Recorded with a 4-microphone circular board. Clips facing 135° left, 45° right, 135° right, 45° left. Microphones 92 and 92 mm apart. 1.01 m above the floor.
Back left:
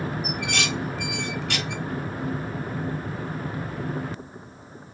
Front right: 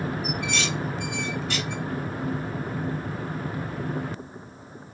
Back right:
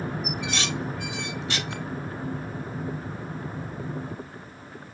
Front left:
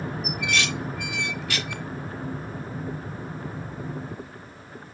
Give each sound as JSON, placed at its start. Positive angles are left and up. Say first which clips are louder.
{"t": 0.2, "sound": "dishes clattering", "louder": "even, front left 2 dB", "azimuth_deg": 160, "distance_m": 0.6}